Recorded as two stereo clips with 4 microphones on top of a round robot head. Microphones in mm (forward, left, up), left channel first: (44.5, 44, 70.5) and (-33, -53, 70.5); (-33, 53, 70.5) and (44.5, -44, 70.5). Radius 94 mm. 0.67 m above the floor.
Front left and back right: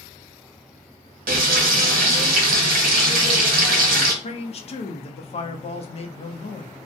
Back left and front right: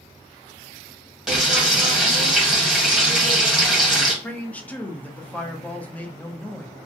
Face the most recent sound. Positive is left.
turn(degrees=55)